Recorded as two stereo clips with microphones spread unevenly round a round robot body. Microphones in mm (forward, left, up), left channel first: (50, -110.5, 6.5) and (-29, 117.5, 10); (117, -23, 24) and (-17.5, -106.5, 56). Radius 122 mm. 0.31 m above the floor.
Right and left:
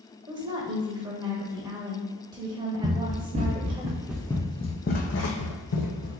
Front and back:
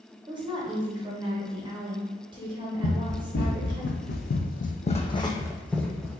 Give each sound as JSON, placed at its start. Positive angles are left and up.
{"t": 0.3, "sound": "a woman speaking", "azimuth_deg": 165, "distance_m": 1.0}
{"t": 2.8, "sound": "running footsteps", "azimuth_deg": 55, "distance_m": 1.2}